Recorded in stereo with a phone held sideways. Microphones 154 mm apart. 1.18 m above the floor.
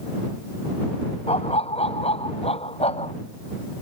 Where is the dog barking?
40° left (ahead or behind).